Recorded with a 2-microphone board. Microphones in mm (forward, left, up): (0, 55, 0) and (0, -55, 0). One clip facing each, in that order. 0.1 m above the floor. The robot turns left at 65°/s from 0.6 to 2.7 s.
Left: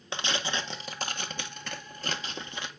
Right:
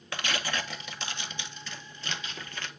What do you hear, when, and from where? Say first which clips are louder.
0.1 s tearing paper: left 1 dB; 25° left (ahead or behind), 1.5 m; by 2.7 s 15° left (ahead or behind), 1.5 m